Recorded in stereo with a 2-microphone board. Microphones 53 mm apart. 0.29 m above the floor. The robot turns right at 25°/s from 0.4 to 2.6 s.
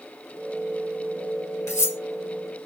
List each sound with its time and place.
1.7 s cutlery clinking: 60° left (ahead or behind), 2.5 m; by 2.0 s 65° left (ahead or behind), 2.5 m